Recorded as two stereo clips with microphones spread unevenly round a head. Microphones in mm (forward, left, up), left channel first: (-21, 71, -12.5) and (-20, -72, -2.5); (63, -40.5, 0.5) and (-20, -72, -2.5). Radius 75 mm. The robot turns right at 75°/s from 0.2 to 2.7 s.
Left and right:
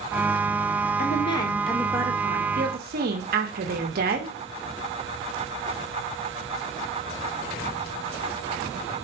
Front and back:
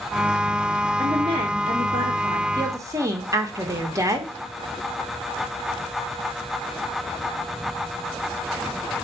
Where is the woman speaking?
125° left, 1.6 m; by 4.3 s 105° right, 1.6 m.